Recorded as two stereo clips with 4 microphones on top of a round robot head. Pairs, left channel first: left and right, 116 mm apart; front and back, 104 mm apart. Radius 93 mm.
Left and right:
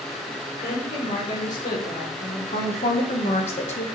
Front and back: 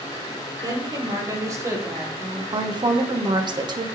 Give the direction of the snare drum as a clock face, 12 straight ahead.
I don't hear a snare drum.